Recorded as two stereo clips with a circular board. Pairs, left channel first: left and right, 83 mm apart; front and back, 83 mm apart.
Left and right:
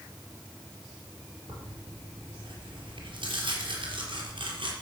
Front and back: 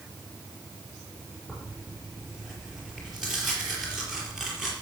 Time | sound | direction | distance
1.5 | tearing paper | 95° right | 4.5 m